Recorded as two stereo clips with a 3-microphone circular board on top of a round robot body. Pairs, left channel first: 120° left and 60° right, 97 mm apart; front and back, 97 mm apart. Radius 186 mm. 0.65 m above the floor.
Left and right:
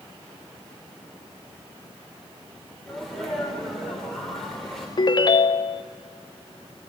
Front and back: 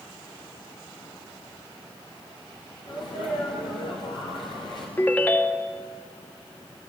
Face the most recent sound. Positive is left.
turn(degrees=70)